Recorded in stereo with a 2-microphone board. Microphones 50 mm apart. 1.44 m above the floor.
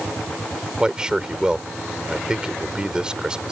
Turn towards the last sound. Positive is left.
turn(degrees=-15)  # may be behind; listen again after turning